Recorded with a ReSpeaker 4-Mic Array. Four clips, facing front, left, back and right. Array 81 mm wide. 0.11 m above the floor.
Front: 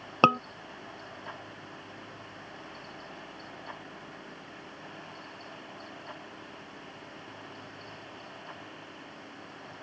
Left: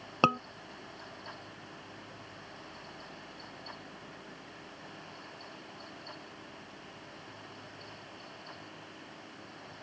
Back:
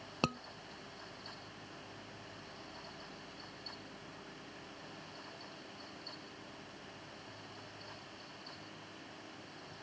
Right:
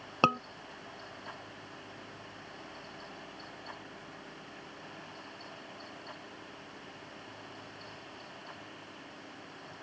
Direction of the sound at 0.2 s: Straight ahead.